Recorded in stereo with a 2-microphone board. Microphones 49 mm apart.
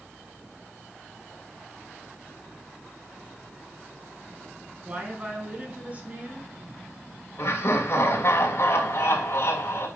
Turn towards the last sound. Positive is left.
turn(degrees=50)  # may be behind; listen again after turning